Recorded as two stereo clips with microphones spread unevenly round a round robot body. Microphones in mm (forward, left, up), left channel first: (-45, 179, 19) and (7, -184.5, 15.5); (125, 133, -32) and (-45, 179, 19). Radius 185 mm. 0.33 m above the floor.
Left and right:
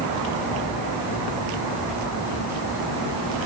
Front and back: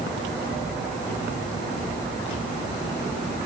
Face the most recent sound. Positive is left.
No sound to turn to.